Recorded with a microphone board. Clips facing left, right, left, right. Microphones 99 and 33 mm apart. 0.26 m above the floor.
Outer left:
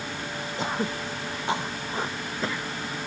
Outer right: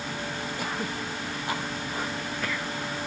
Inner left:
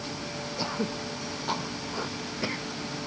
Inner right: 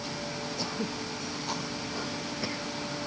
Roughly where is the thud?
I don't hear a thud.